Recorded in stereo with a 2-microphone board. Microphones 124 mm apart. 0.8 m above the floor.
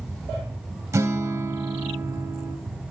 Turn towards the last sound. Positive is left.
turn(degrees=-25)  # may be behind; listen again after turning